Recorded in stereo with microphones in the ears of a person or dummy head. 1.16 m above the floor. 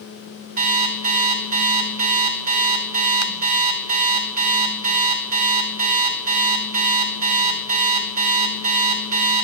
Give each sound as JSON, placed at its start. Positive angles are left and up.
{"t": 0.6, "sound": "an alarm clock", "side_deg": -45, "distance_m": 1.6}